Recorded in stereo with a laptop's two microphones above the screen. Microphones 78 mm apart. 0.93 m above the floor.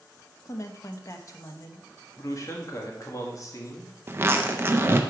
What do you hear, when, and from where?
0.5 s a woman speaking: 45° left (ahead or behind), 0.7 m
2.2 s a man speaking: 45° left (ahead or behind), 1.4 m
4.1 s a zipper: 30° right (ahead or behind), 0.5 m